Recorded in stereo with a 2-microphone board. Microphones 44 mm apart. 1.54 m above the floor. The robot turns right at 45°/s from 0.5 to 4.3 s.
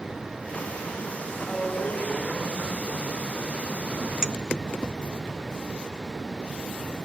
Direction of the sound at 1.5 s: 5° left.